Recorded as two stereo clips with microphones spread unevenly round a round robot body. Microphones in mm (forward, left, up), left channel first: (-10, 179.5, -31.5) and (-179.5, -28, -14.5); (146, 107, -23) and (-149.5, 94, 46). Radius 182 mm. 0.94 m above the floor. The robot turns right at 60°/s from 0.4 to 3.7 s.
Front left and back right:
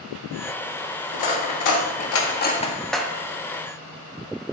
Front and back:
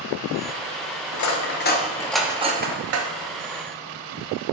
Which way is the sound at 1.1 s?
30° left.